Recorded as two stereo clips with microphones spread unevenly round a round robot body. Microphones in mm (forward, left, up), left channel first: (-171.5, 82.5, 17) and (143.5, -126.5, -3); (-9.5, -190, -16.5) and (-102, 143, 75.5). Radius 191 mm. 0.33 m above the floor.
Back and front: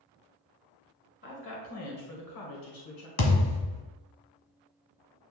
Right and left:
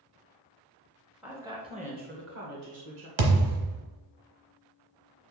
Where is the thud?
90° left, 1.2 m.